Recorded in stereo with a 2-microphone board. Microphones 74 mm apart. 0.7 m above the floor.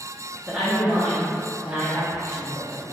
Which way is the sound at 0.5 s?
15° right (ahead or behind).